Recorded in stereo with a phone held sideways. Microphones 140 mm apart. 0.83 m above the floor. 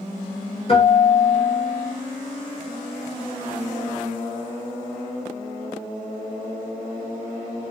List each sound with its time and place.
0.7 s a guitar: 45° left (ahead or behind), 1.1 m